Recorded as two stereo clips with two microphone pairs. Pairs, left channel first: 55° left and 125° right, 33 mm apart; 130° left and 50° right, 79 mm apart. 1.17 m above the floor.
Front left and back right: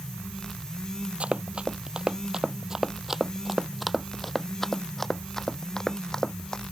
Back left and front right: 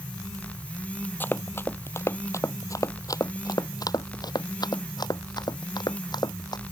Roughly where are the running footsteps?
Behind.